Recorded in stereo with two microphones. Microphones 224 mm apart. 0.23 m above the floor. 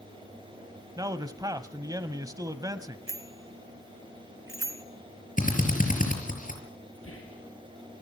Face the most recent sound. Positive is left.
turn(degrees=80)